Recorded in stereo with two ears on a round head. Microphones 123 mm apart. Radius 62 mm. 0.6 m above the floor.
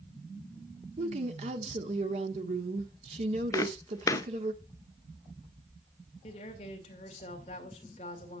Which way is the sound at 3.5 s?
25° left (ahead or behind).